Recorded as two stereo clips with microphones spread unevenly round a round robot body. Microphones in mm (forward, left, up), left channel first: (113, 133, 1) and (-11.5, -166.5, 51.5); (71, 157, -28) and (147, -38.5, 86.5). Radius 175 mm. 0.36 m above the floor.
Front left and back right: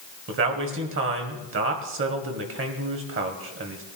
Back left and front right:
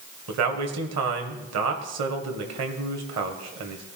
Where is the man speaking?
60° right, 2 m.